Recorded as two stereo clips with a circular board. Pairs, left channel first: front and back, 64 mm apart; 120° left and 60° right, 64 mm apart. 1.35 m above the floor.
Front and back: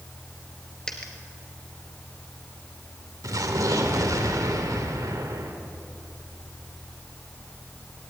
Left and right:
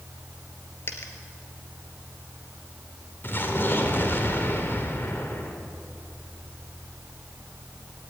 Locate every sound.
0.9 s a dropped coin: 80° left, 3 m
3.2 s an explosion: 170° left, 2.5 m